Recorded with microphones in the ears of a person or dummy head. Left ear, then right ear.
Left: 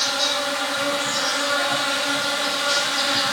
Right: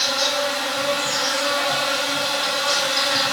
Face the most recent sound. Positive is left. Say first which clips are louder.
# right 1 dB
turn(degrees=-80)